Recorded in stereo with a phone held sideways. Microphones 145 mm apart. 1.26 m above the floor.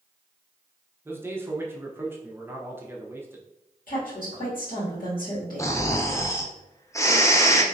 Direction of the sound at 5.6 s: 20° left (ahead or behind).